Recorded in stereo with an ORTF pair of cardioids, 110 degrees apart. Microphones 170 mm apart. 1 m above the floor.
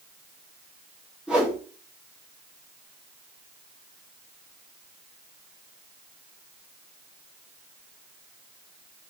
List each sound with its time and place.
1.3 s a whoosh: 5° right, 1.3 m